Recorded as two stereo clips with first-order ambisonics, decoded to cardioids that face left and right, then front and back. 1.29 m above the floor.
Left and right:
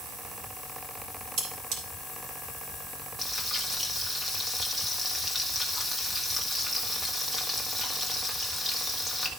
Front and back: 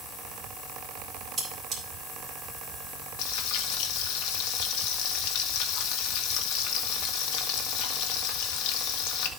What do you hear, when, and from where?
1.4 s cutlery clinking: 115° right, 3 m
3.2 s frying: 10° right, 1.3 m